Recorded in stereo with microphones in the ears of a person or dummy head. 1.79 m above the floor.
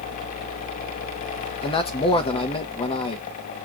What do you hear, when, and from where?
1.6 s a man speaking: 25° left (ahead or behind), 0.9 m